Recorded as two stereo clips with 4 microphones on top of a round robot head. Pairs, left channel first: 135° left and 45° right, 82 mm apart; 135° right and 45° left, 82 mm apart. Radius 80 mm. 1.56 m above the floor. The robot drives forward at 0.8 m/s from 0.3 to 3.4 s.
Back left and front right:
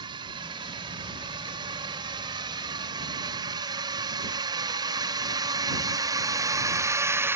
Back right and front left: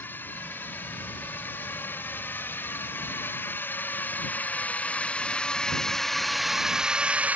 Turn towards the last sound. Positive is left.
turn(degrees=-10)